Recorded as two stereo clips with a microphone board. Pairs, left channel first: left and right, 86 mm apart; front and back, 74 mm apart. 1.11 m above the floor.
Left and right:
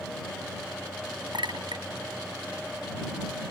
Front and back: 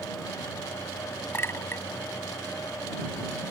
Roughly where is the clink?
Ahead right.